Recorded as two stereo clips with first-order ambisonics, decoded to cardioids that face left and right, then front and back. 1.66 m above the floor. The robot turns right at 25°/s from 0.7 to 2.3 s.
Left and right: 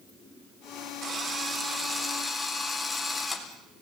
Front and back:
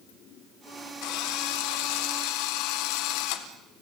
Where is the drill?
25° right, 3.5 m; by 3.5 s 5° left, 3.5 m.